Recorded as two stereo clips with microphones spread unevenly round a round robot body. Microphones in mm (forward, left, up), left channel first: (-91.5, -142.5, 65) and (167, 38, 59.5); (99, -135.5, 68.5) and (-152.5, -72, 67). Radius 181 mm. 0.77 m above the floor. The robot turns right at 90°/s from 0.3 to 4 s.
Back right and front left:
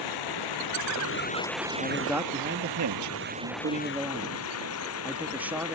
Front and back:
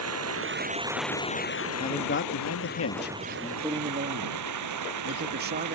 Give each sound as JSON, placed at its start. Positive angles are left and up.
{"t": 0.0, "sound": "running water", "azimuth_deg": -170}
{"t": 1.8, "sound": "a man speaking", "azimuth_deg": -80}